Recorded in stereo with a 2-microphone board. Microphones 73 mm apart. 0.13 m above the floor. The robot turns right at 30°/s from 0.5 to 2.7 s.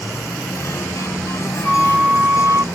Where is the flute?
5° right (ahead or behind); by 2.6 s 35° right (ahead or behind).